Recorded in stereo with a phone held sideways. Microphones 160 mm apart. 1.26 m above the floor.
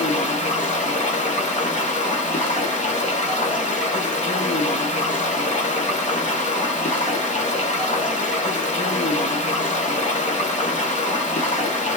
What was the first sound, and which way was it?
Running water, 50° left (ahead or behind).